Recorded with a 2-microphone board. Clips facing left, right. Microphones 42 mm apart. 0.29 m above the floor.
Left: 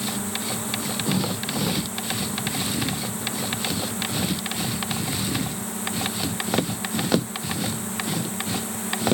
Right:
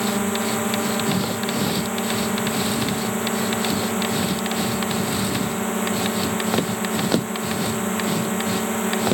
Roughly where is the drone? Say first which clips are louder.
Right 7 dB; right.